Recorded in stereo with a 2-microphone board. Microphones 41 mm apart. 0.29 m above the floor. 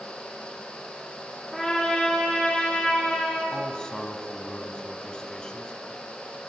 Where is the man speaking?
20° left (ahead or behind), 3 m.